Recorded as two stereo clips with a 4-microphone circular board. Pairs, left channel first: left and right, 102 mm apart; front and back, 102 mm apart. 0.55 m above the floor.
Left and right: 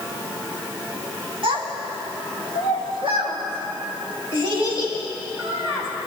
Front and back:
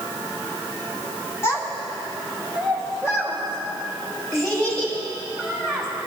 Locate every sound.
1.4 s a child speaking: 60° right, 2.5 m